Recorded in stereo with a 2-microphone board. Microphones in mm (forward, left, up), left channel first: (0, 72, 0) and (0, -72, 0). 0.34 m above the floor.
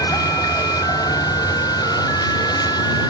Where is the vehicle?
25° left (ahead or behind); by 3.1 s 30° left (ahead or behind).